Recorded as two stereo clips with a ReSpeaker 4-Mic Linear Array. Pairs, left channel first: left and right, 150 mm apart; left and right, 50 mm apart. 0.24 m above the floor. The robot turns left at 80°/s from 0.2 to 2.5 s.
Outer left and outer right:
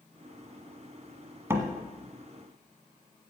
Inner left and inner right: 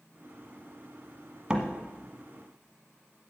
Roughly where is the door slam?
Centre.